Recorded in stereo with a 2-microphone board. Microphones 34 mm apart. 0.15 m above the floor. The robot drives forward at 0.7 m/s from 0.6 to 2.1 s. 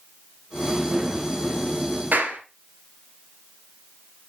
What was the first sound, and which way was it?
A clap, 60° right (ahead or behind).